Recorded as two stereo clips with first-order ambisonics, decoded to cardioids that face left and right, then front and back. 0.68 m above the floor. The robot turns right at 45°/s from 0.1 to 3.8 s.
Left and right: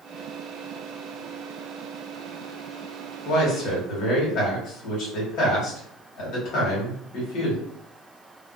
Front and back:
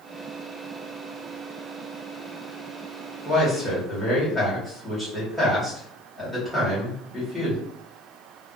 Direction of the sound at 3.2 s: 50° left.